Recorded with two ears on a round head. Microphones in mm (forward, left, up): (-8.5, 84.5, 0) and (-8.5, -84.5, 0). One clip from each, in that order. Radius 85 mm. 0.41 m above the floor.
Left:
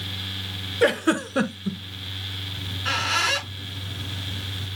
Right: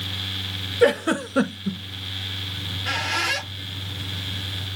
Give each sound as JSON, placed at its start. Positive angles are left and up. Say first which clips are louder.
{"t": 0.8, "sound": "a giggle", "louder": "right 2 dB", "side_deg": 15, "distance_m": 1.2}
{"t": 2.6, "sound": "a squeak", "louder": "left 2 dB", "side_deg": 30, "distance_m": 4.5}